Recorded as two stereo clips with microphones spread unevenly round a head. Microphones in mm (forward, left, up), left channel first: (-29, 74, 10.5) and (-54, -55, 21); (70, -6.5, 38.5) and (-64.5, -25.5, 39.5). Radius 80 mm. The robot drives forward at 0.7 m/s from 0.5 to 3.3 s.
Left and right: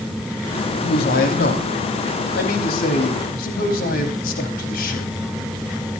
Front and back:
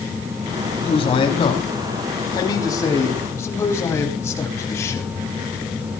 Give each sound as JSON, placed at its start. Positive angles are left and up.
{"t": 0.7, "sound": "a man speaking", "azimuth_deg": 60, "distance_m": 5.0}